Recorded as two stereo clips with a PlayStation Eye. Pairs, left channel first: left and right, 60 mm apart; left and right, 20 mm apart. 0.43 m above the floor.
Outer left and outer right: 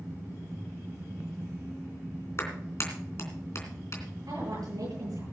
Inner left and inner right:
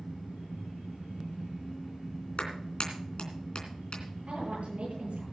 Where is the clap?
50° left (ahead or behind), 3 m.